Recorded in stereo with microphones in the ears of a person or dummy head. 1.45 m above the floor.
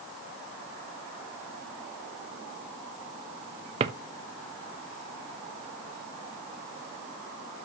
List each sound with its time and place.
3.8 s a drawer: 30° right (ahead or behind), 0.7 m